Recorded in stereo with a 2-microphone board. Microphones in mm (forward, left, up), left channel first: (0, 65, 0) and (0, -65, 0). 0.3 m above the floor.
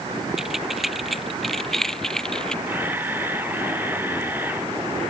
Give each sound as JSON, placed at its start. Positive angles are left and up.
{"t": 0.4, "sound": "keys jangling", "side_deg": -5}
{"t": 2.7, "sound": "a camera shutter", "side_deg": -15}